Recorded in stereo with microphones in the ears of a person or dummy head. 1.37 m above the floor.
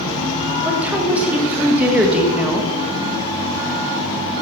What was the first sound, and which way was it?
A woman speaking, 10° right (ahead or behind).